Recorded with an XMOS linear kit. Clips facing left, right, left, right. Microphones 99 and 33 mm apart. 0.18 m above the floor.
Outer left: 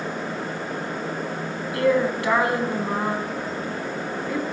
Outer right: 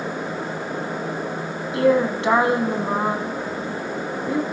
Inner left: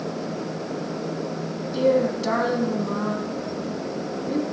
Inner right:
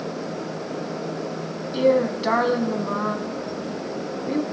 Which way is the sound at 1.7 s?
25° right (ahead or behind).